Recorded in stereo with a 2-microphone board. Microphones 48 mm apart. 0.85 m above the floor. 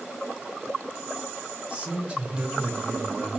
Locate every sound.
1.7 s a man speaking: 25° right (ahead or behind), 3.5 m